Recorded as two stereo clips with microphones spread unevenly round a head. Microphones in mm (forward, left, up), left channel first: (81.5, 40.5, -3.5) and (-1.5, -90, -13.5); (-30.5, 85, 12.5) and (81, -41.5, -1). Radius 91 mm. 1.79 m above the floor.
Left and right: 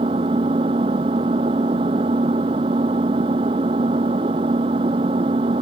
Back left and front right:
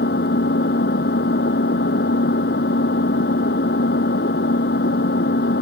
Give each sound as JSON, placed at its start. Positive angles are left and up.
{"t": 0.0, "sound": "an engine running", "azimuth_deg": 175}